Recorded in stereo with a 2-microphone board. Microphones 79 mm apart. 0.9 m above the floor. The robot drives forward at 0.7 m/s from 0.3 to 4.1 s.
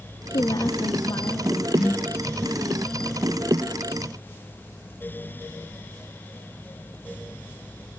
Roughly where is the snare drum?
Centre.